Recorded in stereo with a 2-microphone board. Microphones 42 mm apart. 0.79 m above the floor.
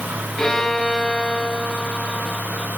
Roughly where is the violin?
Centre.